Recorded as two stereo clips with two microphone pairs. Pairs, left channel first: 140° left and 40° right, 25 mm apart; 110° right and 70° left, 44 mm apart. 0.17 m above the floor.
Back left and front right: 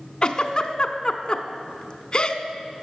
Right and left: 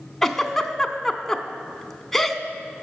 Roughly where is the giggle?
Behind.